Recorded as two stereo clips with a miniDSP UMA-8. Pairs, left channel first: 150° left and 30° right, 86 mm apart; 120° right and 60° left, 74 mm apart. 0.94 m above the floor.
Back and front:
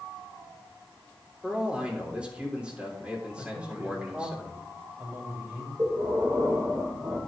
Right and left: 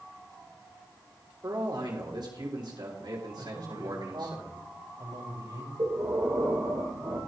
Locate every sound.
1.4 s a man speaking: 50° left, 3 m
3.4 s a man speaking: 45° left, 5 m
5.8 s breathing: 25° left, 4 m